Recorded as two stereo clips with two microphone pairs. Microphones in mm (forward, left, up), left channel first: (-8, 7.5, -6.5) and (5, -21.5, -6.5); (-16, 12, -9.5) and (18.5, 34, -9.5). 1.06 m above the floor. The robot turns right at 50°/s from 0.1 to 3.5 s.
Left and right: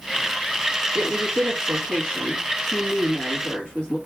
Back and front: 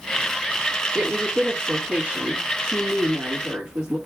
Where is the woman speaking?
80° right, 1.7 m; by 4.0 s 45° left, 1.7 m.